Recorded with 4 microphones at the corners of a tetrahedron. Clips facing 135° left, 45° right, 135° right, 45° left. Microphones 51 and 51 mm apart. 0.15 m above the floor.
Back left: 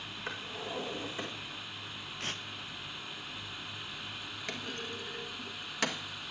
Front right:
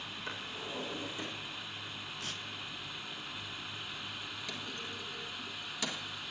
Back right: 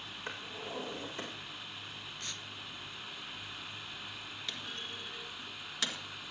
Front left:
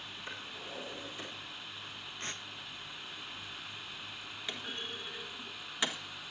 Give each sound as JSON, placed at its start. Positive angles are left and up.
{"t": 0.3, "sound": "a drawer", "azimuth_deg": -165, "distance_m": 7.0}
{"t": 2.2, "sound": "tearing paper", "azimuth_deg": 95, "distance_m": 0.8}
{"t": 4.5, "sound": "a clunk", "azimuth_deg": 115, "distance_m": 1.5}